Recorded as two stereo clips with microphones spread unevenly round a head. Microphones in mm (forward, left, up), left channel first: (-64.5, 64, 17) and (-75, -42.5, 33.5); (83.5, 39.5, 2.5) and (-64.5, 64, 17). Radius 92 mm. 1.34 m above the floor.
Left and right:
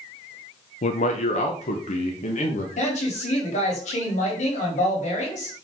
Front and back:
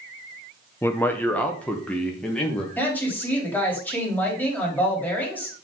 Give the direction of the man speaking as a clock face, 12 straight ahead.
10 o'clock.